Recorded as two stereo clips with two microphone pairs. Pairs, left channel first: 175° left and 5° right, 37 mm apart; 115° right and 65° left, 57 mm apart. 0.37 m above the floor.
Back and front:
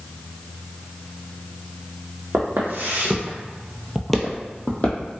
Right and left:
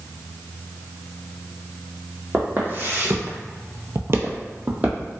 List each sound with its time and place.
2.3 s footsteps: 5° left, 0.9 m; by 5.1 s 130° left, 0.8 m